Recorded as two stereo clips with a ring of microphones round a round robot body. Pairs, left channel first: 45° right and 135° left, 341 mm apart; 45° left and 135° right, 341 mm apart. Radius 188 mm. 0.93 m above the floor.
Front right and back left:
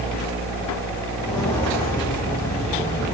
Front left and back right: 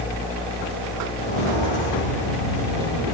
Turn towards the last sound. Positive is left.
turn(degrees=35)